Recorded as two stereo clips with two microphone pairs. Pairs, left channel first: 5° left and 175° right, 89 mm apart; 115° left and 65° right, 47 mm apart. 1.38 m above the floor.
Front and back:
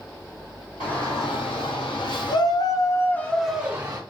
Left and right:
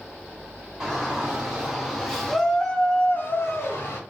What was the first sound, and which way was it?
A shout, 10° left.